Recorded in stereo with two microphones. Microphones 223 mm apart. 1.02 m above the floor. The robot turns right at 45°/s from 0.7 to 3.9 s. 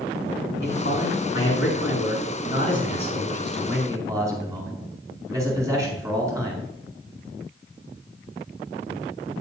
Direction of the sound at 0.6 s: 50° left.